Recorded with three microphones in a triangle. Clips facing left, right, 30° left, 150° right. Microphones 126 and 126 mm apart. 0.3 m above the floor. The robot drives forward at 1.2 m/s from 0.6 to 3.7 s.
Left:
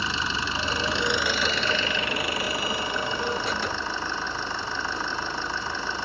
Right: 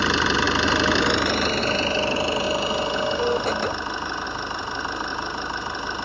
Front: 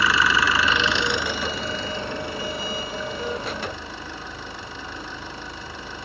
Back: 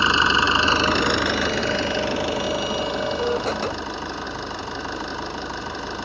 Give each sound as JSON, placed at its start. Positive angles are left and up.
{"t": 0.0, "sound": "an engine running", "azimuth_deg": -85, "distance_m": 1.0}